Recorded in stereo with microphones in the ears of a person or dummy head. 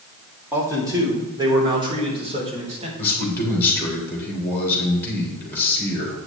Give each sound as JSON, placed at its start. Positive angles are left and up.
{"t": 0.5, "sound": "a man speaking", "side_deg": -20, "distance_m": 3.0}
{"t": 3.0, "sound": "a man speaking", "side_deg": 0, "distance_m": 4.0}